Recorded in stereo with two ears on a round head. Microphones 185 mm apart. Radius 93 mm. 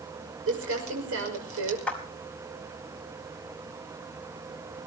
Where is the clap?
5° left (ahead or behind), 5 m.